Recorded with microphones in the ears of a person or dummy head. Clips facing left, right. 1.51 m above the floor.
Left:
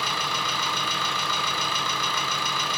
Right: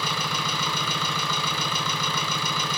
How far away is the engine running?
About 0.7 m.